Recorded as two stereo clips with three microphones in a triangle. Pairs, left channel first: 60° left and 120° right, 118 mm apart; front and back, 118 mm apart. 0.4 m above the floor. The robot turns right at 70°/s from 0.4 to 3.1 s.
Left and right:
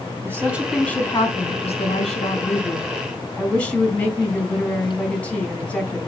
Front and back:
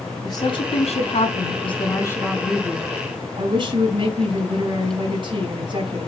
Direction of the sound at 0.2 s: 50° right.